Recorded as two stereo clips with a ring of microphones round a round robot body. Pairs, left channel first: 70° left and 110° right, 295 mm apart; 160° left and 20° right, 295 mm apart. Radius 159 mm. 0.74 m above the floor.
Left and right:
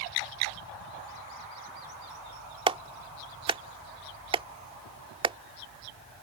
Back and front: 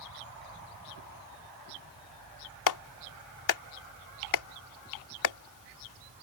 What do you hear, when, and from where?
2.7 s a clap: 175° left